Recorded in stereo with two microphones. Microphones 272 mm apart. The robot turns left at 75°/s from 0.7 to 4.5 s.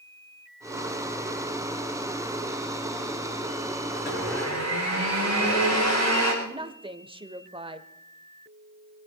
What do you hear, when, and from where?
4.0 s a blender: 150° left, 7 m; by 6.3 s 105° left, 7 m
6.4 s a woman speaking: 20° right (ahead or behind), 0.9 m